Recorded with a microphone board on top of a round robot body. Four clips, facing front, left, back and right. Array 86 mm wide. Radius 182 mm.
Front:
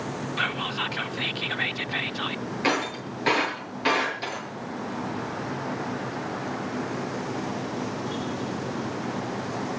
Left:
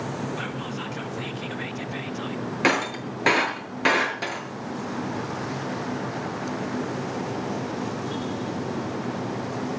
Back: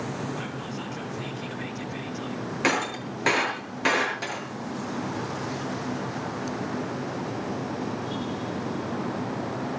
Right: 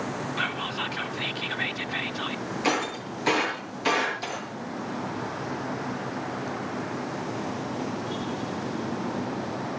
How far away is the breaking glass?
About 7.5 m.